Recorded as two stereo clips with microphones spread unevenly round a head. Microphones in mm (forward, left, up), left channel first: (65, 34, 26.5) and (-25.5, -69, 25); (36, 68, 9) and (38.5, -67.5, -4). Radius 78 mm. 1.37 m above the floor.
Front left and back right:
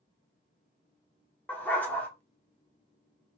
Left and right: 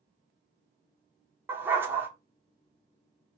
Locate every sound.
1.5 s a dog barking: 20° right, 1.0 m